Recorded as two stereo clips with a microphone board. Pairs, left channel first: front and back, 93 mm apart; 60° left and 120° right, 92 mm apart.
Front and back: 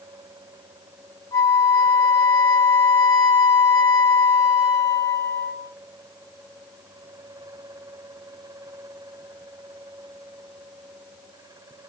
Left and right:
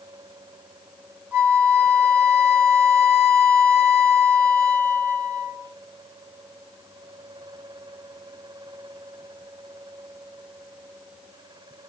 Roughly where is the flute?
Ahead right.